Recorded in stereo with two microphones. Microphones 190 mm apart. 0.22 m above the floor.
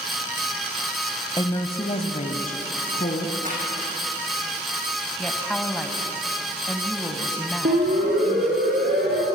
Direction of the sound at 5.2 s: 5° left (ahead or behind).